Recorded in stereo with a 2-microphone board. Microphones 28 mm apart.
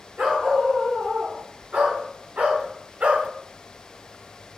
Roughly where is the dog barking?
Right.